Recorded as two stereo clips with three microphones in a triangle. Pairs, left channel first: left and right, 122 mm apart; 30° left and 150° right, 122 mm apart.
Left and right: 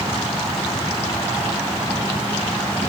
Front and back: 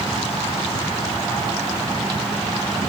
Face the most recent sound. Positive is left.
No sound to turn to.